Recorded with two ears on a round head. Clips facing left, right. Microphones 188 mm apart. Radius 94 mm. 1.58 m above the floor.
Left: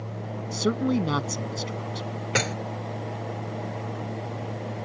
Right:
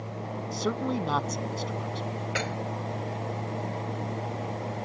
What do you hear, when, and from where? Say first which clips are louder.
0.5 s a man speaking: left 6 dB; 30° left (ahead or behind)
2.4 s dishes clattering: left 7 dB; 60° left (ahead or behind)